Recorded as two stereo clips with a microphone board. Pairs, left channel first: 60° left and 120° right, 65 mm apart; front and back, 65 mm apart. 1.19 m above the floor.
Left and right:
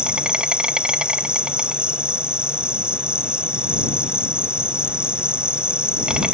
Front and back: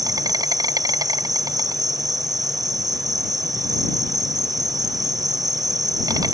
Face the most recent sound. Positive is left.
turn(degrees=165)